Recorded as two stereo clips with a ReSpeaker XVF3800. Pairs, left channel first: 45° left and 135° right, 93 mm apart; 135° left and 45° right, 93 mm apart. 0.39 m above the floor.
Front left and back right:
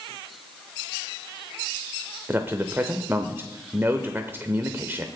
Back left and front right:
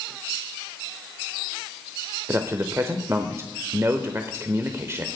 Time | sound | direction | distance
2.3 | a man speaking | 85° right | 0.9 m